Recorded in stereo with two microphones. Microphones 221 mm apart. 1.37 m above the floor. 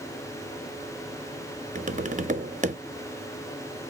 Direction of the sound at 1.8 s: 35° right (ahead or behind).